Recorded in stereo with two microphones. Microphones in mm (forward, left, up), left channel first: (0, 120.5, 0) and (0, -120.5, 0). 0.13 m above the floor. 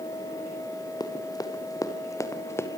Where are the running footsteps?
15° left (ahead or behind), 3 m; by 2.7 s 10° left (ahead or behind), 2.5 m.